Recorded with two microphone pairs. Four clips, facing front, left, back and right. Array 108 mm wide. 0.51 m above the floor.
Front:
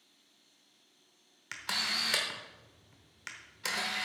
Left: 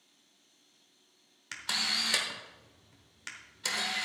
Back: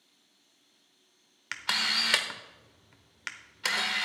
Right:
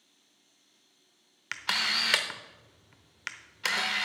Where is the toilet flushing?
I don't hear a toilet flushing.